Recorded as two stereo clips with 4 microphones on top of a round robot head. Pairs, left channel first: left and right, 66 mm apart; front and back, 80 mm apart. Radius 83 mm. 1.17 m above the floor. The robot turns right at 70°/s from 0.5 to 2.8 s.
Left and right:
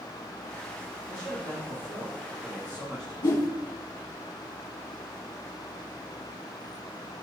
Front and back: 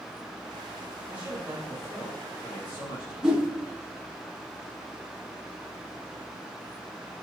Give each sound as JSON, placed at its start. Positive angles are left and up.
{"t": 1.1, "sound": "a man speaking", "azimuth_deg": -140, "distance_m": 3.5}
{"t": 3.2, "sound": "a whoosh", "azimuth_deg": 95, "distance_m": 3.0}